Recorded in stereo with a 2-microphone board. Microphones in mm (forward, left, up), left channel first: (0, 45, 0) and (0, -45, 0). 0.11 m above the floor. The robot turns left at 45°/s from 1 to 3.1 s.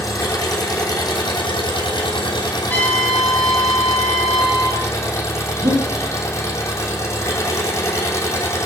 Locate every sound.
0.0 s an engine running: 130° left, 4 m; by 8.7 s 35° left, 4 m
2.7 s a trumpet: 20° left (ahead or behind), 3.5 m; by 4.9 s centre (ahead or behind), 3.5 m
5.6 s breathing: 60° right (ahead or behind), 7.5 m